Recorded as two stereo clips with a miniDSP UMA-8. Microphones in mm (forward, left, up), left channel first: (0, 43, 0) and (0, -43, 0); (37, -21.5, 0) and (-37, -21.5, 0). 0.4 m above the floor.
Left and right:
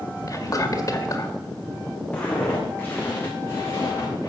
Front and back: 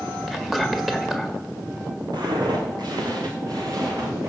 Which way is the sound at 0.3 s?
95° left.